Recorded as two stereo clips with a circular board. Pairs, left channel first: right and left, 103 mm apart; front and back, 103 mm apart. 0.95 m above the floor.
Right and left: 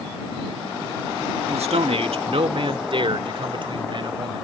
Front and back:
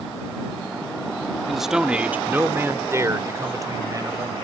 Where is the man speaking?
90° left; by 4.5 s 130° left.